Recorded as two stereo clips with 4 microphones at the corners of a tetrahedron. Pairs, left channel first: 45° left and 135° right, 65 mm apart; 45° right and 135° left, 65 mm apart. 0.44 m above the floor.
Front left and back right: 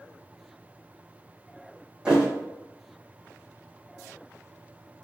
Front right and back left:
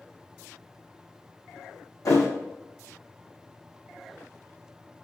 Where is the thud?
60° right, 0.9 m.